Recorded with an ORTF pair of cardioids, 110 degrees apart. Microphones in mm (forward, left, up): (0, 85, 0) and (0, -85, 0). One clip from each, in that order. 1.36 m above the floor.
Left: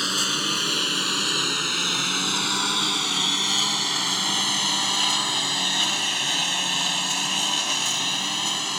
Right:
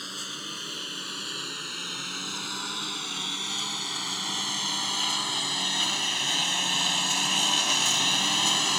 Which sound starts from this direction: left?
A lawn mower, at 0.0 s.